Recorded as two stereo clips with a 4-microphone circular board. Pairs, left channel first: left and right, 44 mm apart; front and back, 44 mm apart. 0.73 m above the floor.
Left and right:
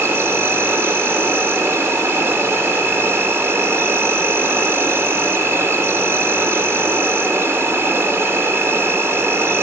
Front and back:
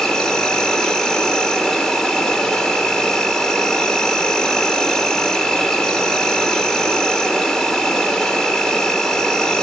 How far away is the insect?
About 1.4 m.